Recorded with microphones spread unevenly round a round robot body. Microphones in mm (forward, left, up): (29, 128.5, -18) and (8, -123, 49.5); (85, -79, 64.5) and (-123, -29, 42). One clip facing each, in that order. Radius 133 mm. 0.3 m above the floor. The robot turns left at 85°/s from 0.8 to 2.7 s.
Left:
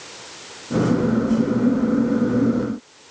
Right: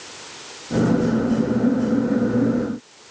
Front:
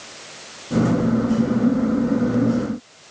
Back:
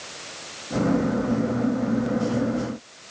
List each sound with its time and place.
Only background noise.